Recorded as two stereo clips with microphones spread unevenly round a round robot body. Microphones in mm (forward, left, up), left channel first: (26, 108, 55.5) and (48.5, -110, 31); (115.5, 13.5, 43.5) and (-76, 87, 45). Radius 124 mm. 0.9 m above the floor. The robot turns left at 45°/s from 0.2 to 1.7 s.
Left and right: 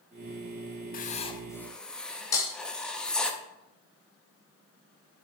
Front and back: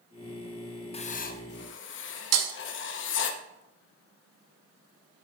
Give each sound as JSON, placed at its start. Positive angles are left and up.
{"t": 0.9, "sound": "writing", "azimuth_deg": 45, "distance_m": 0.7}
{"t": 2.3, "sound": "breaking glass", "azimuth_deg": 175, "distance_m": 0.7}